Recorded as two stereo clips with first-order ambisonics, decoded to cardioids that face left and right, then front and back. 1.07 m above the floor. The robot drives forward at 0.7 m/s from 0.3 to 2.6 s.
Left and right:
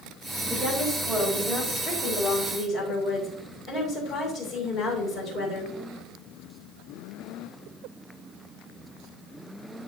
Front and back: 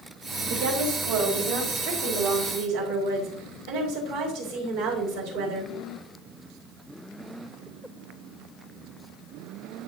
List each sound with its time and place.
0.5 s a woman speaking: 175° right, 3.5 m